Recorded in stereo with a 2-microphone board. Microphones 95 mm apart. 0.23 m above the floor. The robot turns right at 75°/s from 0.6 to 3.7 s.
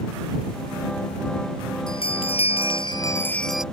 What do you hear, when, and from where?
1.9 s a bell: 50° left; by 3.6 s 175° right